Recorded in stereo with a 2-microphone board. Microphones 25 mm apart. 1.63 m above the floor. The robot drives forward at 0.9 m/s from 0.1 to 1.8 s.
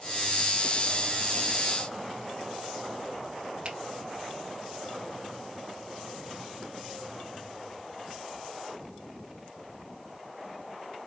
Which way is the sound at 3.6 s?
45° right (ahead or behind).